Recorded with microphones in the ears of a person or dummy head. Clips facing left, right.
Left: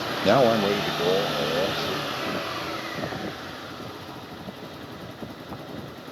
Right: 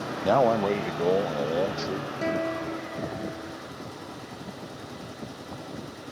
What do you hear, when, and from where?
0.2 s a man speaking: 35° left (ahead or behind); by 2.1 s 10° right (ahead or behind)
2.2 s a guitar: 80° right